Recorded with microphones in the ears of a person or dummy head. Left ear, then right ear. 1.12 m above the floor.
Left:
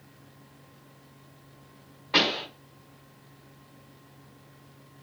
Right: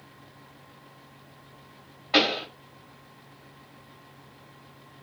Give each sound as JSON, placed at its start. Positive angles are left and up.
{"t": 2.1, "sound": "a pop", "side_deg": -15, "distance_m": 0.8}